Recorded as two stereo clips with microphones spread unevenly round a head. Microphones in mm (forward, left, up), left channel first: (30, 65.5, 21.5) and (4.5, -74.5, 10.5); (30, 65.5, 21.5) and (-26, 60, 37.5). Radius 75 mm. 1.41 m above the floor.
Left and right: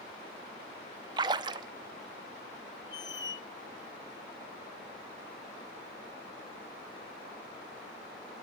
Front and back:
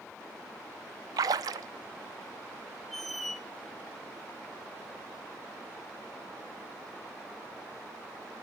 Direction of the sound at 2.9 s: 115° left.